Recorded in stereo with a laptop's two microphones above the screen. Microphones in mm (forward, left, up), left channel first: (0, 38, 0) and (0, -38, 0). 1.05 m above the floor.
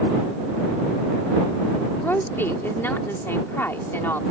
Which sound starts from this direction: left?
A woman speaking, at 2.0 s.